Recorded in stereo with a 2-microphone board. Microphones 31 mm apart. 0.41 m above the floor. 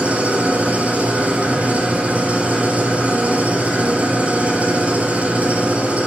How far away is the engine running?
About 7 m.